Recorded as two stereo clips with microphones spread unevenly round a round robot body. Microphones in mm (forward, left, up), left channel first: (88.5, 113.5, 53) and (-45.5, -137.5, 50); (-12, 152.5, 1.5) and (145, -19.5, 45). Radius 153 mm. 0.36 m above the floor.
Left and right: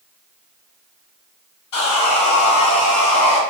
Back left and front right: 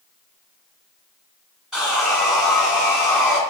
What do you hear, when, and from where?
1.7 s sawing: 40° left, 1.6 m